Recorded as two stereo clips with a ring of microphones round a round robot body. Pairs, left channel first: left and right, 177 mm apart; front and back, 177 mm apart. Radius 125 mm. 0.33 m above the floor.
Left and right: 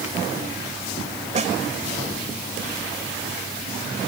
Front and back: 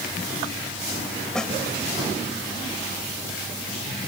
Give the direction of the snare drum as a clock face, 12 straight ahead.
3 o'clock.